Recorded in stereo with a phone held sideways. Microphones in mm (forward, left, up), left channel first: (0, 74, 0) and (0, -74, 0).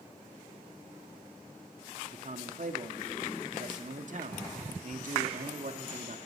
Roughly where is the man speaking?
Right.